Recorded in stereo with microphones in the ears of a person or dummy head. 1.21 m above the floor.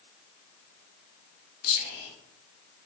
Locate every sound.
1.6 s whispering: 45° left (ahead or behind), 1.2 m